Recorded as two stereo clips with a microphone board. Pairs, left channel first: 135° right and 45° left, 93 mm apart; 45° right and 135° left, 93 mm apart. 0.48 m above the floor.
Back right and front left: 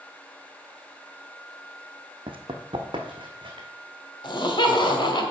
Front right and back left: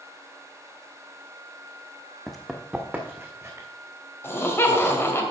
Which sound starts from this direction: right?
Laughter, at 4.2 s.